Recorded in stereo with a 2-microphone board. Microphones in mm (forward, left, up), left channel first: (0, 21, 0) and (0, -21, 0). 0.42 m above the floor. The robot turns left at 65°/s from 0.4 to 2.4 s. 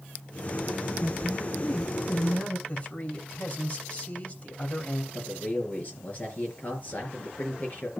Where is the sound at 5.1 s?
40° left (ahead or behind), 5.5 m.